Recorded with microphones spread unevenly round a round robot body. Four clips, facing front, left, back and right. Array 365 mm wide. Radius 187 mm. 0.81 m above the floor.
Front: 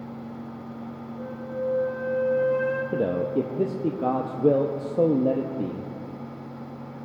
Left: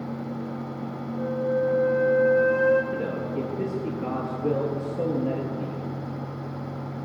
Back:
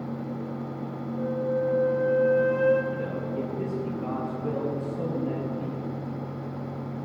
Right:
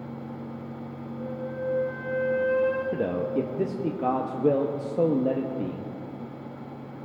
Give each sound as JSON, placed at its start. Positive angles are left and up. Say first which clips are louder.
{"t": 1.2, "sound": "a flute", "louder": "left 9 dB, back 5 dB", "azimuth_deg": 155, "distance_m": 0.9}
{"t": 2.9, "sound": "a man speaking", "louder": "right 2 dB, front 6 dB", "azimuth_deg": -20, "distance_m": 0.8}